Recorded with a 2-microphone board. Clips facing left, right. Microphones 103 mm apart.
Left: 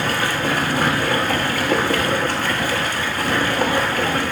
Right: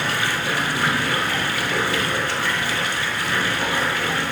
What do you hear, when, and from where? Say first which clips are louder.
0.0 s running water: left 3 dB; 50° left (ahead or behind), 1.0 m